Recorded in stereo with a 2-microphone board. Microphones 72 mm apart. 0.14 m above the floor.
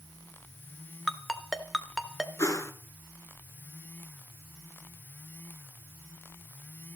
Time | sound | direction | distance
1.1 | a ringtone | centre (ahead or behind) | 0.9 m
2.4 | a whoosh | 45° left (ahead or behind) | 1.4 m